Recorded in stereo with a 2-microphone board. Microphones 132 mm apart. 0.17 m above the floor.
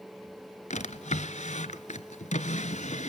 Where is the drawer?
65° left (ahead or behind), 1.2 m.